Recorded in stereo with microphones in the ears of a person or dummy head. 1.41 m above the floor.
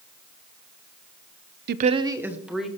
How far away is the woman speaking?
About 0.5 m.